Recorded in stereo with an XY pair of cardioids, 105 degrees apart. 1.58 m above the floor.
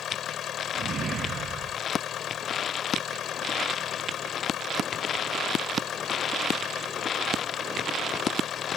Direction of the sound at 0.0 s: 60° left.